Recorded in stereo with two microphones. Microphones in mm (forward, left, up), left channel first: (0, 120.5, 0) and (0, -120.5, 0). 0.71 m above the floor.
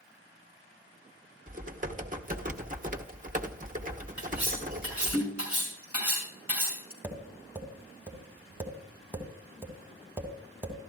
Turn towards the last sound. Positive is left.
turn(degrees=-10)  # may be behind; listen again after turning